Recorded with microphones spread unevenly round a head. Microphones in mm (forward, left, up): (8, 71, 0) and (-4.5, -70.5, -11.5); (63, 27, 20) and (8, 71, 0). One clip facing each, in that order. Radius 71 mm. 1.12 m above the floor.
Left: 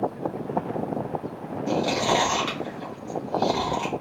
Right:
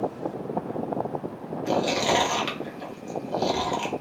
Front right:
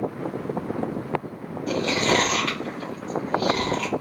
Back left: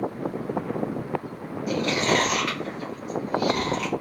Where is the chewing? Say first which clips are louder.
Even, front right 1 dB; 155° right, 0.9 m.